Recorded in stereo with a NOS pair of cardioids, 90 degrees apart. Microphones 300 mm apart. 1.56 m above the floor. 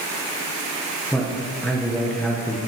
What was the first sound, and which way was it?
A man speaking, straight ahead.